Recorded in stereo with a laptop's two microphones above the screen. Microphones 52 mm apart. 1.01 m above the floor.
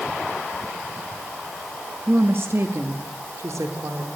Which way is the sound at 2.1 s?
35° right (ahead or behind).